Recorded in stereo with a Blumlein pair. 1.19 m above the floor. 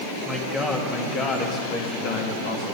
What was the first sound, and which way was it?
A man speaking, 15° left.